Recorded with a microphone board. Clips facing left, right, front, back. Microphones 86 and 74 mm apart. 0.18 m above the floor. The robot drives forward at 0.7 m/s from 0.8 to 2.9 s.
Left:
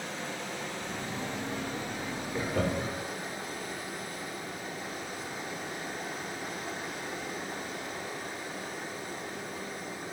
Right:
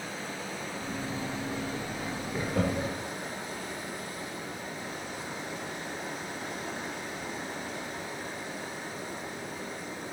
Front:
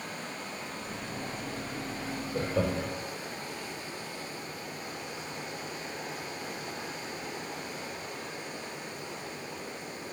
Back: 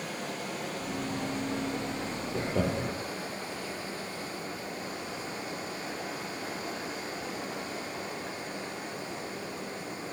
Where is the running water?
175° right, 3 m.